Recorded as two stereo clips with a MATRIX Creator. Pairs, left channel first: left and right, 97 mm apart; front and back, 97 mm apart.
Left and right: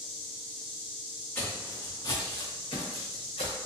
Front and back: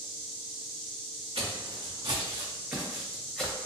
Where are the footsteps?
155° left, 1.1 m; by 3.5 s 80° left, 1.0 m.